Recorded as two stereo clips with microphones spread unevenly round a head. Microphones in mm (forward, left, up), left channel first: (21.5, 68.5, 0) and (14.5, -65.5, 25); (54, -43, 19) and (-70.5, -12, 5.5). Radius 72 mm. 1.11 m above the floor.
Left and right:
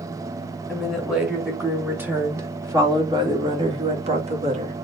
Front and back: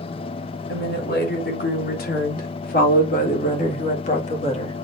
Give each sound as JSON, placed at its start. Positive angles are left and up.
{"t": 0.7, "sound": "a woman speaking", "azimuth_deg": -5, "distance_m": 3.0}